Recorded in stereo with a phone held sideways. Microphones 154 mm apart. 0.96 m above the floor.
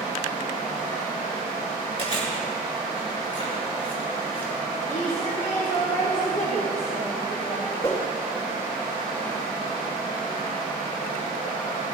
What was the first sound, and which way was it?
Chewing, 45° left (ahead or behind).